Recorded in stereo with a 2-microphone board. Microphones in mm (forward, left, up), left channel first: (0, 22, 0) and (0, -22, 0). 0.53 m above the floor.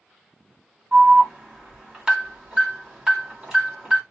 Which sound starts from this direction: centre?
An alarm, at 0.9 s.